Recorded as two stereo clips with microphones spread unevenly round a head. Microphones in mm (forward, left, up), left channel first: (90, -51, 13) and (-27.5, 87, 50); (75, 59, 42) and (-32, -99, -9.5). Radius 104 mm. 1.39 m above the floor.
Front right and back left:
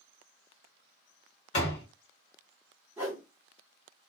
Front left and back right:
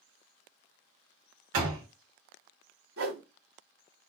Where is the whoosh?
155° right, 2.0 m.